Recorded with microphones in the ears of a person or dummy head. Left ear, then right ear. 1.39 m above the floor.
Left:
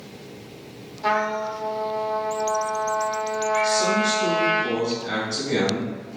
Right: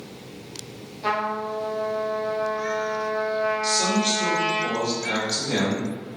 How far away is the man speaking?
About 1.7 m.